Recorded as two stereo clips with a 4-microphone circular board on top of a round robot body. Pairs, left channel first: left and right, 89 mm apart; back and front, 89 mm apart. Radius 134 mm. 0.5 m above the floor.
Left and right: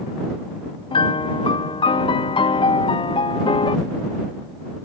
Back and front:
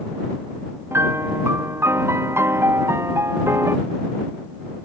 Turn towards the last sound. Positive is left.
turn(degrees=65)